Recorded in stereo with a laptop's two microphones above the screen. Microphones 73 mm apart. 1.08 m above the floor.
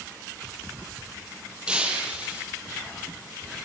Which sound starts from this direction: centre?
Breaking glass, at 1.7 s.